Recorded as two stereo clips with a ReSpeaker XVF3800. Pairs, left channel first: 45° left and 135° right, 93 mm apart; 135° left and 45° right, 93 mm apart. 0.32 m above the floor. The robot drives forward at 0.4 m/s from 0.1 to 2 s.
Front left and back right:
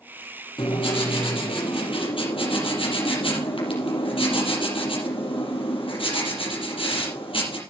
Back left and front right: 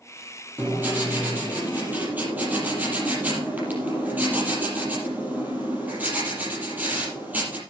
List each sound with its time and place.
0.6 s writing: 25° left, 6 m